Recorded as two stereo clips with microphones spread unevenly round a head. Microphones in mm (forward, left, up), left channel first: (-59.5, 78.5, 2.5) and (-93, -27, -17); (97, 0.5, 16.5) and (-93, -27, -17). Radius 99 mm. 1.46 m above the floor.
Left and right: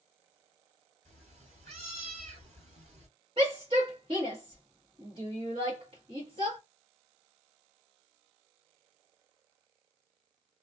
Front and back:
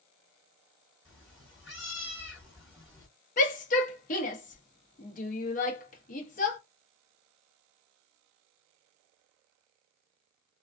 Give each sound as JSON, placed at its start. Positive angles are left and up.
{"t": 1.1, "sound": "a cat meowing", "azimuth_deg": -70, "distance_m": 1.9}
{"t": 3.4, "sound": "a shout", "azimuth_deg": -40, "distance_m": 0.9}